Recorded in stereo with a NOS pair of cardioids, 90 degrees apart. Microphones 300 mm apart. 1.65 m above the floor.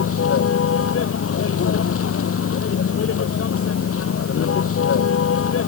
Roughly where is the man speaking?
I don't hear a man speaking.